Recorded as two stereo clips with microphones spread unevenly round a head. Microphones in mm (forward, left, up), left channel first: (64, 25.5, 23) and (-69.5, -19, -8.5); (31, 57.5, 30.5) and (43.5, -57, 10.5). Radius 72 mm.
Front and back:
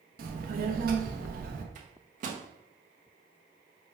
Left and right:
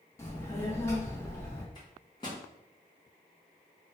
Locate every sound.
0.2 s a child speaking: 165° left, 0.7 m
1.8 s a microwave: 160° left, 0.7 m